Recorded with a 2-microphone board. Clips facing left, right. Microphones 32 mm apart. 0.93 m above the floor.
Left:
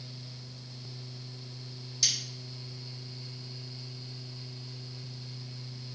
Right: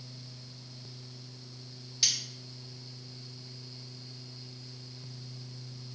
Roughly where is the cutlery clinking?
Right.